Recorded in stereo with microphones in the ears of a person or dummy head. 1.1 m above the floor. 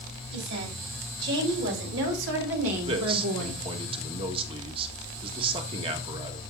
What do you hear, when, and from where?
0.3 s a woman speaking: 65° right (ahead or behind), 6 m; by 3.6 s 85° right, 2 m
2.8 s a man speaking: 30° right (ahead or behind), 1.7 m